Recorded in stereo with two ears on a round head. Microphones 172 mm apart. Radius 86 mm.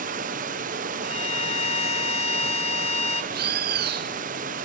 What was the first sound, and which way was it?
Running water, 45° right (ahead or behind).